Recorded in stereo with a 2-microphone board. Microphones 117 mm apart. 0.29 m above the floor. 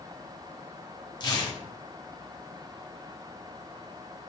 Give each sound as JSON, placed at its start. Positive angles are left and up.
{"t": 1.2, "sound": "tearing paper", "side_deg": 40, "distance_m": 0.7}